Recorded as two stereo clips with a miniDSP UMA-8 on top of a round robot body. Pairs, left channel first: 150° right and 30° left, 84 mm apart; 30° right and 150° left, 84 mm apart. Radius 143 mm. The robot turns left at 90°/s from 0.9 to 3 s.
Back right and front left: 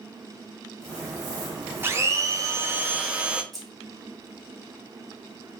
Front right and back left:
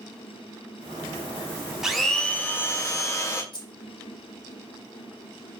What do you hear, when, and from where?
1.8 s a blender: 70° left, 0.8 m; by 3.4 s 35° right, 0.8 m
3.5 s keys jangling: 65° right, 1.1 m